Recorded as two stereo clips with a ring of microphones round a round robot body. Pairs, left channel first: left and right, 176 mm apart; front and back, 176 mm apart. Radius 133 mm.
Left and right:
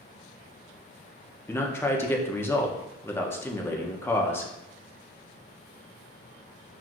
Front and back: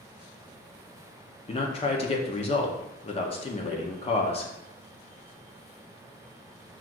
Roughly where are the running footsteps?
I don't hear running footsteps.